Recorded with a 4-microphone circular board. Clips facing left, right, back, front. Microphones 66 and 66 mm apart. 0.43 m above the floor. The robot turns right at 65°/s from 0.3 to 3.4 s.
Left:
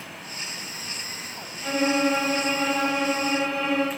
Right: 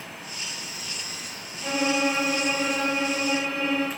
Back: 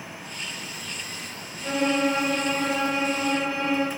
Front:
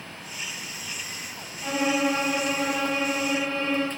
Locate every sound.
1.6 s a violin: 5° right, 1.9 m; by 3.9 s 110° left, 1.9 m